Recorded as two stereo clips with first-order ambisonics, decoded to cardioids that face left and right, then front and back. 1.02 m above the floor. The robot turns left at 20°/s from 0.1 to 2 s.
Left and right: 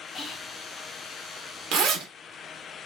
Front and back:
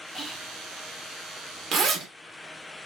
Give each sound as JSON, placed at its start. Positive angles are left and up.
{"t": 0.1, "sound": "whispering", "azimuth_deg": 65, "distance_m": 0.5}
{"t": 1.7, "sound": "a zipper", "azimuth_deg": -120, "distance_m": 0.6}